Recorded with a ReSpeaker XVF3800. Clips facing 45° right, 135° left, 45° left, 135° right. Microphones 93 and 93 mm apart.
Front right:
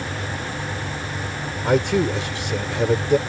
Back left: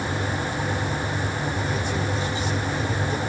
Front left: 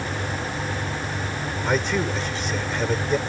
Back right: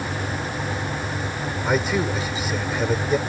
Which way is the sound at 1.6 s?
50° right.